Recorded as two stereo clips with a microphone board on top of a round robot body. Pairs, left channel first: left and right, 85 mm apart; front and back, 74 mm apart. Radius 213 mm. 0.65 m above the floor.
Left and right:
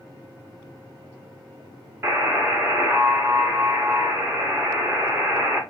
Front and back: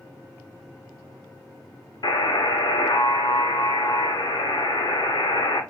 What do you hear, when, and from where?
2.0 s a buzzer: 25° right, 0.8 m